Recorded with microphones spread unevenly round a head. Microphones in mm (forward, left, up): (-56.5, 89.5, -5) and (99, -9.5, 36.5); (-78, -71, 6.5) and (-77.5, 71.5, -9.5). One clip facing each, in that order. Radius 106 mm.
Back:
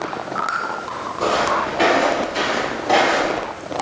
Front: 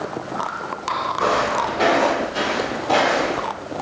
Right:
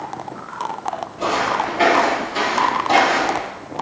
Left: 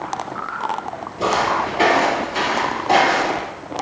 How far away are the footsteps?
About 1.6 m.